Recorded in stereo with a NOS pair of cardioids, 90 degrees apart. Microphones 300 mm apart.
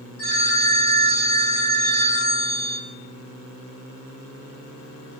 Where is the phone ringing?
50° left, 2.0 m.